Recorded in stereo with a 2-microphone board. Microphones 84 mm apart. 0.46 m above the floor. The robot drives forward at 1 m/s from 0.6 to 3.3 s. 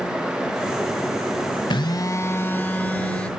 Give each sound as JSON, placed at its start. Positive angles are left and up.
{"t": 1.7, "sound": "a phone buzzing", "side_deg": 65, "distance_m": 0.5}